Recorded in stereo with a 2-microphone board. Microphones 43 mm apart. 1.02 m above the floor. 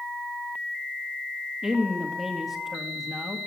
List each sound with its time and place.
1.6 s a woman speaking: 10° right (ahead or behind), 1.3 m